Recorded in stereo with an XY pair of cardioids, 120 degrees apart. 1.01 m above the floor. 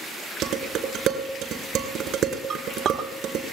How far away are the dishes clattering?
About 2.5 m.